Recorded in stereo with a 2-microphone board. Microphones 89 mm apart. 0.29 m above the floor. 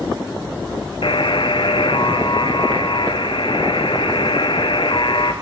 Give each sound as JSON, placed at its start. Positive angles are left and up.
{"t": 1.0, "sound": "a buzzer", "side_deg": 70, "distance_m": 2.0}